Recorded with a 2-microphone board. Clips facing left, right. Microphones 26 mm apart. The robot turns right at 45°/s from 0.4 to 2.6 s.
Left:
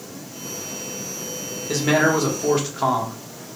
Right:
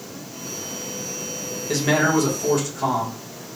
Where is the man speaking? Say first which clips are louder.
Left 1 dB; straight ahead, 0.8 m; by 3.2 s 40° left, 0.8 m.